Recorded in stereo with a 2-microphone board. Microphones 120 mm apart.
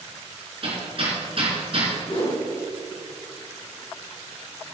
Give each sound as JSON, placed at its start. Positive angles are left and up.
{"t": 0.6, "sound": "hammering", "side_deg": -50, "distance_m": 3.5}
{"t": 2.1, "sound": "a whoosh", "side_deg": 40, "distance_m": 3.5}